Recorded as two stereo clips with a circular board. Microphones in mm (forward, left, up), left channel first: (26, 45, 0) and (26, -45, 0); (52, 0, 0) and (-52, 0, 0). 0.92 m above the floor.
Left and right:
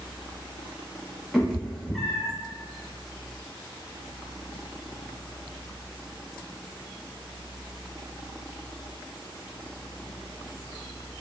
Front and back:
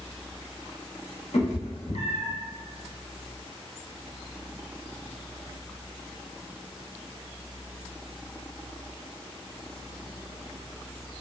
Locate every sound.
1.3 s a cat meowing: straight ahead, 0.6 m